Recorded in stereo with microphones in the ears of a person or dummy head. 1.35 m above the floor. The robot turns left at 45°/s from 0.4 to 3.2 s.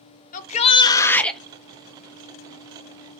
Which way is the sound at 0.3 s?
45° left.